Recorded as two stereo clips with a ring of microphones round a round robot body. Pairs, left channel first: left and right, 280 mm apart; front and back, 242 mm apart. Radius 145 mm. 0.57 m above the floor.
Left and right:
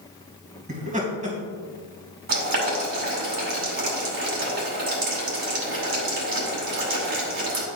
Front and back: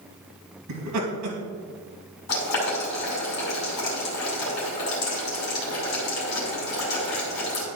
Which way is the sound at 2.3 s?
40° right.